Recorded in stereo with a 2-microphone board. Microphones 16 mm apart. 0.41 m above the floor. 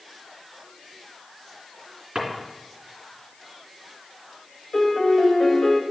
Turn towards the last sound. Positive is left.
turn(degrees=55)  # may be behind; listen again after turning